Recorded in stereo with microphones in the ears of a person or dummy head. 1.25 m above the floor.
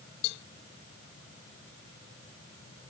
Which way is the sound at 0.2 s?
65° left (ahead or behind).